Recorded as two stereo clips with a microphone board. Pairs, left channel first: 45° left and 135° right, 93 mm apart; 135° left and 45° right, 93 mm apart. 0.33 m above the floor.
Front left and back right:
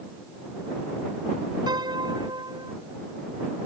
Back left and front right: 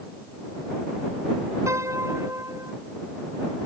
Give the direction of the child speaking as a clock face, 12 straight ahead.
I don't hear a child speaking.